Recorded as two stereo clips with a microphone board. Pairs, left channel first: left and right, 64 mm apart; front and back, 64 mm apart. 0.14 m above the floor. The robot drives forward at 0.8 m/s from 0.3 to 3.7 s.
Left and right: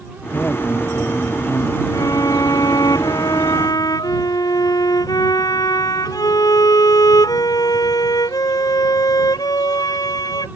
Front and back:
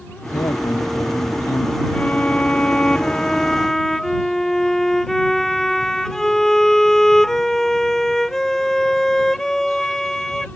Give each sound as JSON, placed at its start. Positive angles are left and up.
{"t": 0.3, "sound": "a man speaking", "azimuth_deg": 20}
{"t": 1.9, "sound": "a violin", "azimuth_deg": 70}